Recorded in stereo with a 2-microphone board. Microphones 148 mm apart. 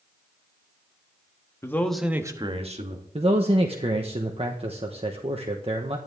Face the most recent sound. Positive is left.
turn(degrees=-40)  # may be behind; listen again after turning